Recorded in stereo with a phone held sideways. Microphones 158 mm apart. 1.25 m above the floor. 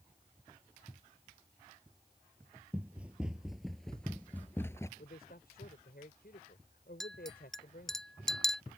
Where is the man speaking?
80° left.